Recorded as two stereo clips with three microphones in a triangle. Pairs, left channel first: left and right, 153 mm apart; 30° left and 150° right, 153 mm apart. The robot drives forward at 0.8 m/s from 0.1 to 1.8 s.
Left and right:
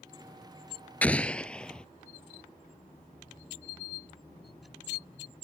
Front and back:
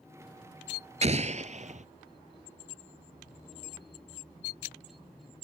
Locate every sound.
1.0 s an explosion: 170° left; by 1.9 s 175° left